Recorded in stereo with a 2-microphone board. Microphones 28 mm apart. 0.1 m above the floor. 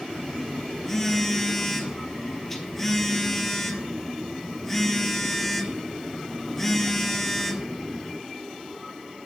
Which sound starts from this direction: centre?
A phone buzzing, at 0.1 s.